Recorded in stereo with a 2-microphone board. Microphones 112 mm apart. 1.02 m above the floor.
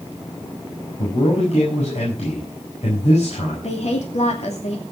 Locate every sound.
1.0 s a man speaking: 75° left (ahead or behind), 6 m
3.6 s a woman speaking: 75° left (ahead or behind), 2.5 m